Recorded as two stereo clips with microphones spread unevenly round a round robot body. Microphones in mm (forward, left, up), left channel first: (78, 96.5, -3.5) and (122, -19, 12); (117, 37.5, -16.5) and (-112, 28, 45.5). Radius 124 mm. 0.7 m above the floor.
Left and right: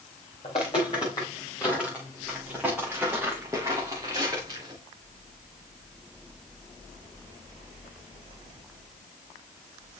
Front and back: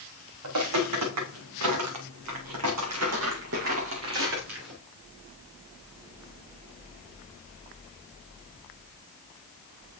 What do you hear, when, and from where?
0.4 s footsteps: straight behind, 3.5 m; by 4.8 s 135° right, 4 m